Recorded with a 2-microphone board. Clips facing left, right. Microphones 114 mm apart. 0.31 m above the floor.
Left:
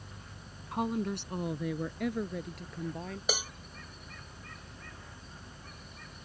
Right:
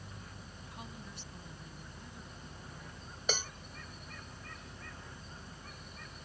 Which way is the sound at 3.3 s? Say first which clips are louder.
Left 1 dB; 10° left (ahead or behind).